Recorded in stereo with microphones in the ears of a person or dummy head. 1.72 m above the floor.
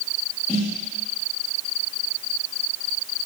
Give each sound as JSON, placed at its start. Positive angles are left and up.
{"t": 0.5, "sound": "a snare drum", "side_deg": 20, "distance_m": 1.7}